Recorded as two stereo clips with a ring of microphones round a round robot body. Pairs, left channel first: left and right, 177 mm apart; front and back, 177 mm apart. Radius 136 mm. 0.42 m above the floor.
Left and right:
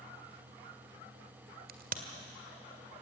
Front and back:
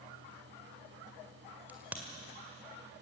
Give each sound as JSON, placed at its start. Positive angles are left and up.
{"t": 1.7, "sound": "a crack", "azimuth_deg": -100, "distance_m": 1.8}